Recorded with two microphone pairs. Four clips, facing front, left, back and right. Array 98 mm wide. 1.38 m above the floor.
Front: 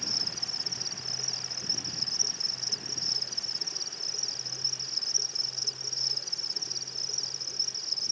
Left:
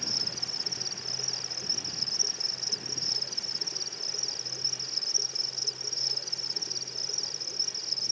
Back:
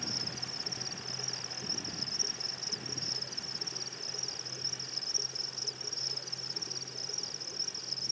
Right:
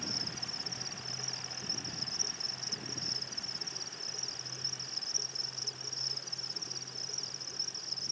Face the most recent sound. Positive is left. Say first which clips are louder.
# left 1 dB, back 1 dB
turn(degrees=90)